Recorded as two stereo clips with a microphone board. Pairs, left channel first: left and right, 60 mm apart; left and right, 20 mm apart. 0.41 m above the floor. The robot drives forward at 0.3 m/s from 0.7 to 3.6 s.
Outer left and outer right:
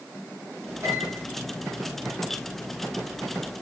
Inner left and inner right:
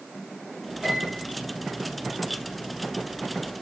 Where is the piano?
50° right (ahead or behind), 7 m.